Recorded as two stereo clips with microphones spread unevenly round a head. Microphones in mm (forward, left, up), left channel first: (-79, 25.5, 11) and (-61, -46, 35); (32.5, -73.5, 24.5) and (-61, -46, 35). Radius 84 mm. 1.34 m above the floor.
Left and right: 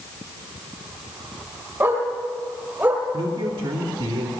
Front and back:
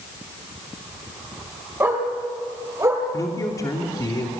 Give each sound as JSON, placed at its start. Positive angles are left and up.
{"t": 1.8, "sound": "a dog barking", "azimuth_deg": -125, "distance_m": 9.5}
{"t": 3.1, "sound": "a man speaking", "azimuth_deg": -70, "distance_m": 3.0}